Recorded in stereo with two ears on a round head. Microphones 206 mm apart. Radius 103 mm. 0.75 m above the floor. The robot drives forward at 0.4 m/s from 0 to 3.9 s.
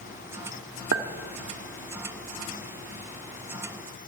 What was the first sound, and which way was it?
A clink, 65° right (ahead or behind).